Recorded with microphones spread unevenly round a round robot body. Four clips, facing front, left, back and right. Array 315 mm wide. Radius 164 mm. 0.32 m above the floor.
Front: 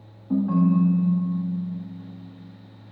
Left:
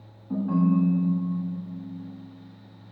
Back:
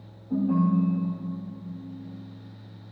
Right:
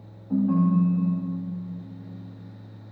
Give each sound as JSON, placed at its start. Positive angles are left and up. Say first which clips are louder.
{"t": 0.3, "sound": "a ringtone", "louder": "right 1 dB, front 3 dB", "azimuth_deg": 15, "distance_m": 10.0}